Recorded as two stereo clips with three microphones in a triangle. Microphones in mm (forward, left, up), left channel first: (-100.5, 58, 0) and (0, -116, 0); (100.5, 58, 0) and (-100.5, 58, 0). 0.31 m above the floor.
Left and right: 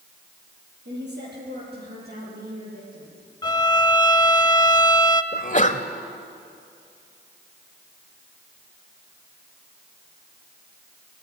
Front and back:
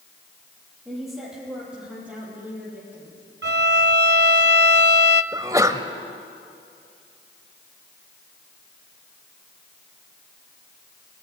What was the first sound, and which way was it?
A woman speaking, 90° right.